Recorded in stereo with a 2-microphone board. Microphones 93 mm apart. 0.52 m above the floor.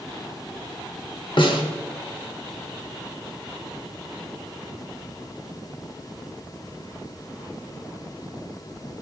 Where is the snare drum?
60° left (ahead or behind), 0.9 m.